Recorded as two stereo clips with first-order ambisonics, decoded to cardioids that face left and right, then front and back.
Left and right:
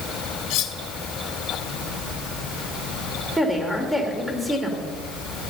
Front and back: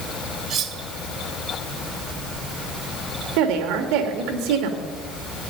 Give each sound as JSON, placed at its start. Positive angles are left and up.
{"t": 0.5, "sound": "cutlery clinking", "azimuth_deg": 125, "distance_m": 1.5}
{"t": 3.4, "sound": "a woman speaking", "azimuth_deg": -175, "distance_m": 2.5}